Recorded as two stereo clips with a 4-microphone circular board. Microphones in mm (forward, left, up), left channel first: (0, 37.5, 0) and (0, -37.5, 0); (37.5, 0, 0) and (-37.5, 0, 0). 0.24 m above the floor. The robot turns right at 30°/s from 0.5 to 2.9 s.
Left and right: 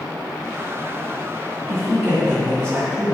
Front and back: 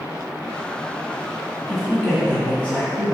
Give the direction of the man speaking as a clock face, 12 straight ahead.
3 o'clock.